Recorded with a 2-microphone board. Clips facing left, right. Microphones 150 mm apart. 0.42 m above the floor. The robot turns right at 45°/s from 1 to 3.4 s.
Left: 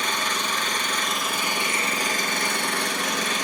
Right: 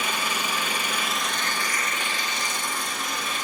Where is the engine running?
5° right, 3 m; by 3.5 s 100° left, 3 m.